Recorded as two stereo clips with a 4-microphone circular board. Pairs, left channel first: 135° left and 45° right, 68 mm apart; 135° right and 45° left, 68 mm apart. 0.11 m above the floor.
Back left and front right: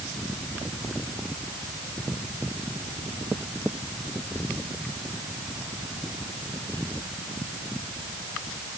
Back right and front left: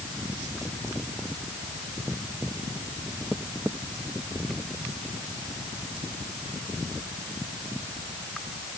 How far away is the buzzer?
I don't hear a buzzer.